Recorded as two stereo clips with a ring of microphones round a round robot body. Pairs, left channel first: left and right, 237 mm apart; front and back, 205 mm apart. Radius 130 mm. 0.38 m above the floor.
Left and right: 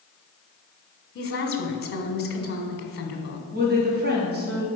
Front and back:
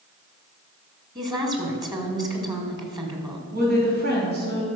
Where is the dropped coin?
No dropped coin in this recording.